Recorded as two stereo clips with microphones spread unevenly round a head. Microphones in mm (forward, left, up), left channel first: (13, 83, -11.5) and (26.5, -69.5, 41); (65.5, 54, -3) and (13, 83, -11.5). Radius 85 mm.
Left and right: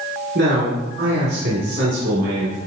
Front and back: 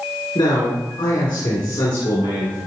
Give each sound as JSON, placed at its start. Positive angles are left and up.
{"t": 0.3, "sound": "a man speaking", "azimuth_deg": -65, "distance_m": 2.5}